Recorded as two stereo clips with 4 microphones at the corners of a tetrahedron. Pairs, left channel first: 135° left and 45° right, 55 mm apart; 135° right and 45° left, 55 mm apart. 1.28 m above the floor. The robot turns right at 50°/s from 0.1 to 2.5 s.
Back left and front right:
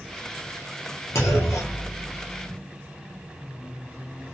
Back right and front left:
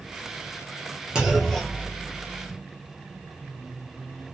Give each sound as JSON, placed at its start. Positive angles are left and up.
{"t": 1.1, "sound": "a clunk", "azimuth_deg": 120, "distance_m": 0.7}